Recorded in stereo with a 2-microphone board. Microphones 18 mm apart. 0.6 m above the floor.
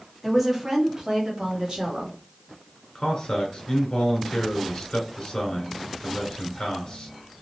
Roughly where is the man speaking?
Left.